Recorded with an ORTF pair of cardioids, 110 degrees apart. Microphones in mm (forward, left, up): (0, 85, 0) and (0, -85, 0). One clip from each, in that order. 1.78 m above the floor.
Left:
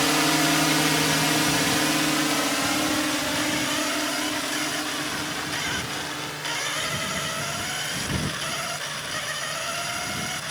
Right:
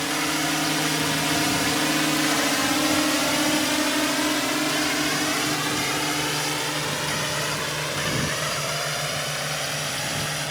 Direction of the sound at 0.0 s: 30° left.